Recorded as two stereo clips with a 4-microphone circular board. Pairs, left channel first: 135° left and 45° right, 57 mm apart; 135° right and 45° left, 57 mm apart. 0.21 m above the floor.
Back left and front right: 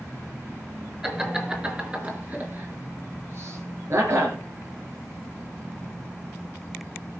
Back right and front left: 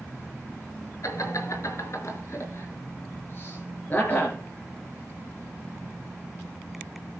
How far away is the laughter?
About 4 m.